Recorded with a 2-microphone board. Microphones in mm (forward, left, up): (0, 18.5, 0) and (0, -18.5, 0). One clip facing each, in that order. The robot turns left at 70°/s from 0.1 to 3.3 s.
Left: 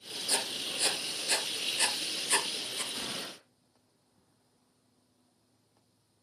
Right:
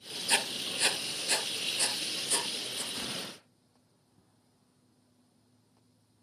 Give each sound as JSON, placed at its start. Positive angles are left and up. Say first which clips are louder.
{"t": 0.3, "sound": "writing", "louder": "right 4 dB", "side_deg": -65, "distance_m": 1.3}
{"t": 2.9, "sound": "a gunshot", "louder": "even", "side_deg": 0, "distance_m": 7.5}